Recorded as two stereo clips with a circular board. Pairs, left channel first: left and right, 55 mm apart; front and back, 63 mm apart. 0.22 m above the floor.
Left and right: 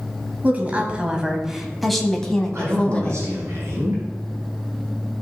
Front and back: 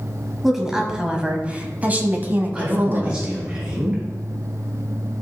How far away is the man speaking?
About 3.5 m.